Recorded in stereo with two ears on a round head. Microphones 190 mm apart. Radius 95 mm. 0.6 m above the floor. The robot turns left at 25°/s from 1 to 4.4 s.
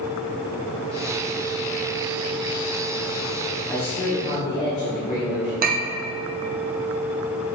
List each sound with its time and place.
3.7 s a man speaking: 15° left (ahead or behind), 2 m; by 5.5 s 30° left (ahead or behind), 2 m
5.6 s a clink: 40° right (ahead or behind), 0.7 m